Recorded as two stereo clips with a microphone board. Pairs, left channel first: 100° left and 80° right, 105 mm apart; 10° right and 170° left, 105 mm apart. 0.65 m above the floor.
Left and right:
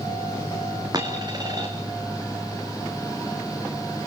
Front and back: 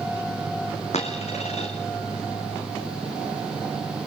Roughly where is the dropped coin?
Ahead right.